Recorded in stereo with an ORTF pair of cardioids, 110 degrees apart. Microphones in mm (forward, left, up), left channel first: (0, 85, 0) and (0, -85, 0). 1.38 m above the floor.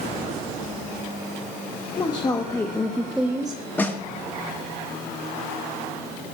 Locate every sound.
2.0 s a woman speaking: 25° left, 1.3 m; by 3.6 s 35° right, 0.6 m
3.8 s a snare drum: 10° left, 1.6 m